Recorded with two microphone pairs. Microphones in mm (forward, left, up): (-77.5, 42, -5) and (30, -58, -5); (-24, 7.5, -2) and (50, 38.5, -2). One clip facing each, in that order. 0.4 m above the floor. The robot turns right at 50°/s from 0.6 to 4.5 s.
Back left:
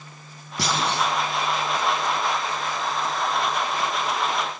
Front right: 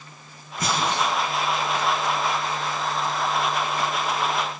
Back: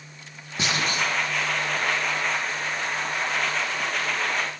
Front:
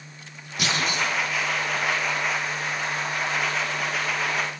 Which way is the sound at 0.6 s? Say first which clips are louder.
Even, even; 140° left.